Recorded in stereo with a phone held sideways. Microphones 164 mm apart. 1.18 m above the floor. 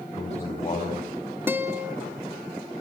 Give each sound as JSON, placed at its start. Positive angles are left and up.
{"t": 0.2, "sound": "a man speaking", "side_deg": 40, "distance_m": 7.0}
{"t": 1.5, "sound": "a guitar", "side_deg": -15, "distance_m": 1.9}